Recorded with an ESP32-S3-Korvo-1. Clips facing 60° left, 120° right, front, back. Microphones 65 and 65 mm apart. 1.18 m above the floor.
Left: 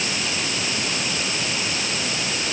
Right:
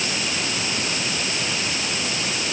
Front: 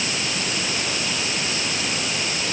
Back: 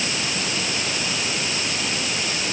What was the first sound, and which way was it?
Only background noise.